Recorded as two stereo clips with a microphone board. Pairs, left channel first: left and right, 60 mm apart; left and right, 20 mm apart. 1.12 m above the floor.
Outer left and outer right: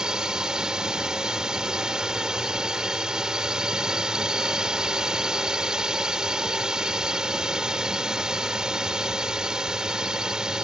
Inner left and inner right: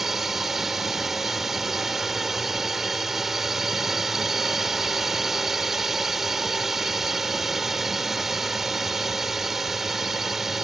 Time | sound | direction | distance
0.0 | a drone | 10° right (ahead or behind) | ?